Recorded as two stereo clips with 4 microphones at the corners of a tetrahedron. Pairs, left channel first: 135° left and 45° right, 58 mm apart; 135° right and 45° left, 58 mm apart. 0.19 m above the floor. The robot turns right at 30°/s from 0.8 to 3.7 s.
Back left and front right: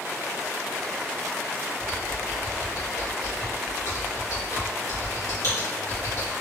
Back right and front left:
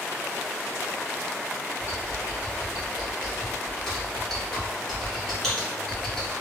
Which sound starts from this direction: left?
Typing on a keyboard, at 1.8 s.